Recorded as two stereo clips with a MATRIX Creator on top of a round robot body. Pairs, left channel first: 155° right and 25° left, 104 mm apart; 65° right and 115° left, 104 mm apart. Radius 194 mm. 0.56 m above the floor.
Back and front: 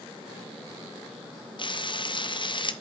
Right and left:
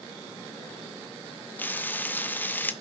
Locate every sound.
1.6 s frying: 135° right, 1.0 m